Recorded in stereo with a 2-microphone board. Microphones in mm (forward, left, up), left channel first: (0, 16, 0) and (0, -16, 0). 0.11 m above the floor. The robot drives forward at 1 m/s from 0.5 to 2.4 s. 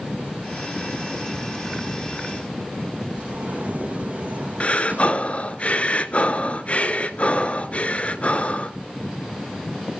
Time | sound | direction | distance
3.2 | a sliding door | 55° right (ahead or behind) | 3 m
4.6 | breathing | 40° left (ahead or behind) | 0.9 m